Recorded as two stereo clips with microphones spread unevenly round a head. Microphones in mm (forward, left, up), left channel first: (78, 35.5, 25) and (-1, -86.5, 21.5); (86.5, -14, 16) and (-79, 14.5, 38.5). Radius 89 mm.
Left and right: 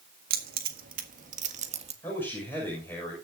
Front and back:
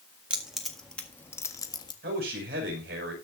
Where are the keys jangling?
105° right, 1.7 m; by 1.9 s 75° right, 1.5 m.